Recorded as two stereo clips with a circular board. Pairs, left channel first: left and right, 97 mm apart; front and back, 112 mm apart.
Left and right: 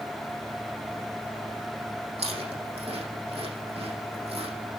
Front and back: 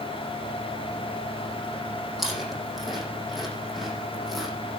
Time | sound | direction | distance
2.2 | chewing | 90° right | 5.5 m